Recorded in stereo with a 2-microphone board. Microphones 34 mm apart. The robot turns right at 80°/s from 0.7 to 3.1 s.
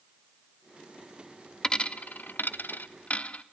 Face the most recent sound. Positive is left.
turn(degrees=40)  # may be behind; listen again after turning